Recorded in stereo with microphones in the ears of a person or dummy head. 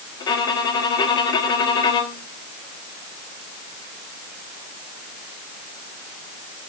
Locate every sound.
0.2 s a violin: 30° left (ahead or behind), 1.3 m